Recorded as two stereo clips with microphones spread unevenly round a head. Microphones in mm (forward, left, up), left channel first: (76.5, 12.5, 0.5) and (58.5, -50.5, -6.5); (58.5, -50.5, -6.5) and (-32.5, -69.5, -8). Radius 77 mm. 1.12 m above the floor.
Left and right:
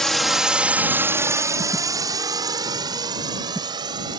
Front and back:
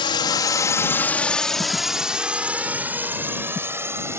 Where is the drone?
10° right; by 4.2 s 105° right.